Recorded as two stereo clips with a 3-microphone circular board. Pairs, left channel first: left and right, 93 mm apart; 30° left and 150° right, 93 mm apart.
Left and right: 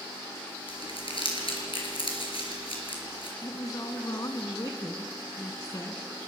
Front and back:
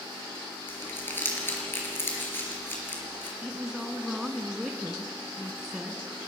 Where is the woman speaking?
125° left, 1.7 m.